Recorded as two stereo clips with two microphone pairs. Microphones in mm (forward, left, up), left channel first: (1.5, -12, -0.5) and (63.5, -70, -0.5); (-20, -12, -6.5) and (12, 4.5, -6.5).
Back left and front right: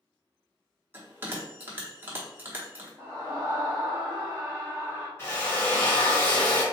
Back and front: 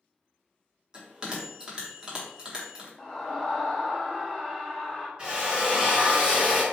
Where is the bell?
20° right, 1.0 m.